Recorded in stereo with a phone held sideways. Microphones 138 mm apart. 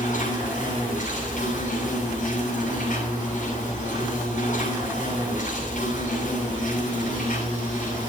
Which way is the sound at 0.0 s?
70° left (ahead or behind).